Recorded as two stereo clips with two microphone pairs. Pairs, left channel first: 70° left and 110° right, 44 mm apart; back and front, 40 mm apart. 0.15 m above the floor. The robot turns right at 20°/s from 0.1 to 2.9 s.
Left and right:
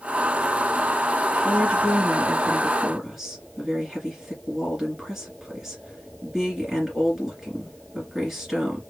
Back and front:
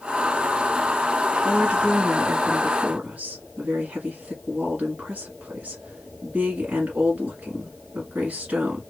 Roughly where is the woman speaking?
Ahead right.